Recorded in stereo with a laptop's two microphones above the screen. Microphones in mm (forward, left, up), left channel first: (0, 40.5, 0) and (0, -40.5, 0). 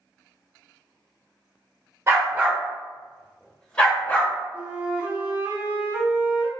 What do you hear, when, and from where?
2.1 s a dog barking: 35° right (ahead or behind), 0.9 m; by 4.3 s 25° left (ahead or behind), 1.3 m
4.5 s a flute: 20° right (ahead or behind), 0.8 m